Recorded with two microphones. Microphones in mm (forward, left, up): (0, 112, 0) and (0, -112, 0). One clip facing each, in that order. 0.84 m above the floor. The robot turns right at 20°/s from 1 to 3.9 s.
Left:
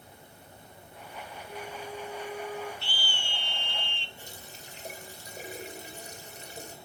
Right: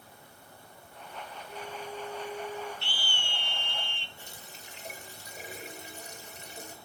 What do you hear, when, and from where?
1.5 s a flute: 70° left (ahead or behind), 3.5 m; by 2.7 s 85° left, 3.5 m
2.8 s a scream: 65° right (ahead or behind), 0.9 m; by 4.1 s 50° right (ahead or behind), 0.9 m
4.2 s a running tap: 35° left (ahead or behind), 2 m